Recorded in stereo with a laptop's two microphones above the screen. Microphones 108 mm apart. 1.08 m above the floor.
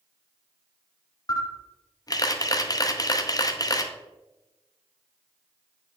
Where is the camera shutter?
35° left (ahead or behind), 0.6 m.